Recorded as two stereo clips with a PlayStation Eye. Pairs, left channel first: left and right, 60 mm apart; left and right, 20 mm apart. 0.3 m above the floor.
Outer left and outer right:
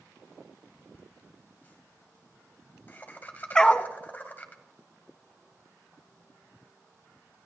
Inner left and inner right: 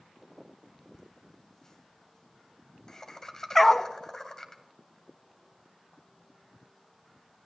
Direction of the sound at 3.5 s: 10° left (ahead or behind).